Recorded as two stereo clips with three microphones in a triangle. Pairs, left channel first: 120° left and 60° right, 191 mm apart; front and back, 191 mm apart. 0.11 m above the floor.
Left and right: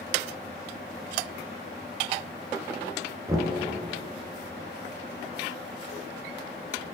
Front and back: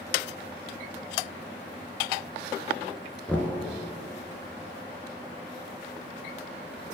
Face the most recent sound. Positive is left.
turn(degrees=-65)